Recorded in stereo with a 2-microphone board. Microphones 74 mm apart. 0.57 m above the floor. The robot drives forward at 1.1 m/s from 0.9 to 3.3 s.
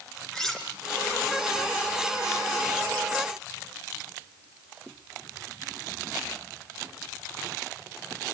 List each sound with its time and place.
0.3 s cutlery clinking: 5° left (ahead or behind), 4 m